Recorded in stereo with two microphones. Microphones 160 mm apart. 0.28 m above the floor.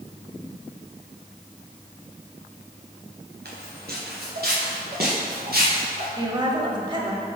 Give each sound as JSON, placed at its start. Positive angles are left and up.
{"t": 3.5, "sound": "footsteps", "side_deg": -85, "distance_m": 2.5}
{"t": 6.2, "sound": "a woman speaking", "side_deg": -30, "distance_m": 1.0}